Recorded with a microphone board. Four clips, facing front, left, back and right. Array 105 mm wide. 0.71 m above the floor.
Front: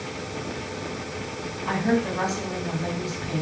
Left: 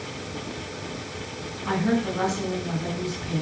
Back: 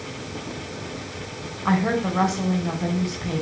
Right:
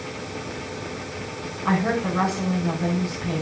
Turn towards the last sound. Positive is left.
turn(degrees=-145)